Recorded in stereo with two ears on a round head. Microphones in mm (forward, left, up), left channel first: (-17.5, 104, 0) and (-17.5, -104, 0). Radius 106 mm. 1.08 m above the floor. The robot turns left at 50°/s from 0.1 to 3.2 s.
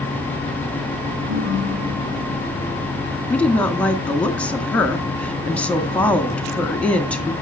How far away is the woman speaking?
About 1.8 m.